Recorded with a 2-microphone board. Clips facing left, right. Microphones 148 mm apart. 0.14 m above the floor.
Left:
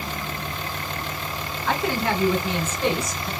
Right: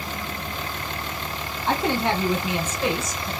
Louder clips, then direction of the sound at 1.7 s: Right 1 dB; 30° right (ahead or behind).